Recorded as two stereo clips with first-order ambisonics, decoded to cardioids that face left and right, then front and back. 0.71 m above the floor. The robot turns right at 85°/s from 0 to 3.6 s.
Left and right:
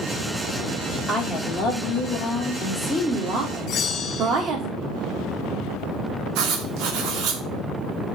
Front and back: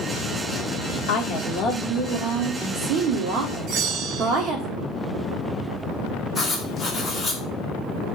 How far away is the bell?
About 0.9 m.